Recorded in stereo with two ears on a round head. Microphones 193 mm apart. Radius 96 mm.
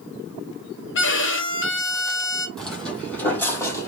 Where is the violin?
60° left (ahead or behind), 1.0 m.